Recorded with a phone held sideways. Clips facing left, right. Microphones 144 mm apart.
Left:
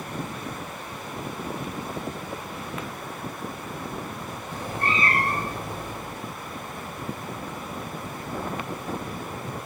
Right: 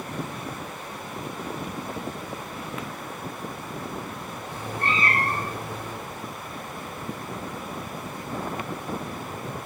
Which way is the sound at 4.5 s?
40° left (ahead or behind).